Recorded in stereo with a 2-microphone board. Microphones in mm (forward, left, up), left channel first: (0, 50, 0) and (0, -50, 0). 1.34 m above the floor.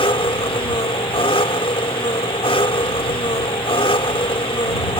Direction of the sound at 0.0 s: 65° left (ahead or behind).